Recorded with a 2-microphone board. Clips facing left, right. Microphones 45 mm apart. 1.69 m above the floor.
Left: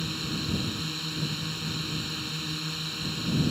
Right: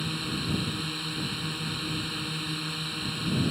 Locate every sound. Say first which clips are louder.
0.0 s a drone: right 1 dB; 10° right (ahead or behind)